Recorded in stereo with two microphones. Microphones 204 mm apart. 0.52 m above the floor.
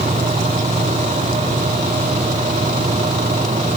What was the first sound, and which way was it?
Only background noise.